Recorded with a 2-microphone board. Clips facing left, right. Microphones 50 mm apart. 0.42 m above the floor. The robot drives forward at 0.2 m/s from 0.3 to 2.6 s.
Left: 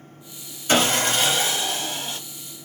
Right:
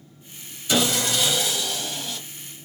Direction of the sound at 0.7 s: 45° left (ahead or behind).